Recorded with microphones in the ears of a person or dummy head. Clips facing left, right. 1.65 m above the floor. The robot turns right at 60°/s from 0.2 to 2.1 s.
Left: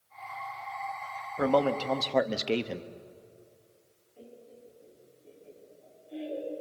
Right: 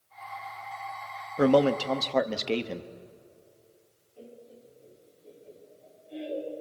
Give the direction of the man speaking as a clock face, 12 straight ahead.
1 o'clock.